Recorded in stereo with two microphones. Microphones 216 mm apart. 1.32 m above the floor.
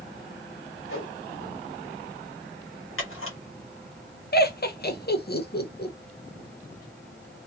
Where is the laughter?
50° left (ahead or behind), 0.8 m.